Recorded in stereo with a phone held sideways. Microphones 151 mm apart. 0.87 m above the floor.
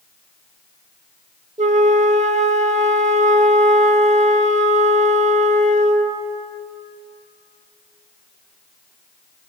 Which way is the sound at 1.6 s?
50° right (ahead or behind).